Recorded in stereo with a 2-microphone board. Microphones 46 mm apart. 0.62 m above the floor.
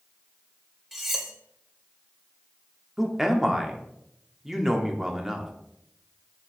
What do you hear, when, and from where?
0.9 s cutlery clinking: 5° right (ahead or behind), 1.1 m
3.0 s a man speaking: 10° right (ahead or behind), 1.1 m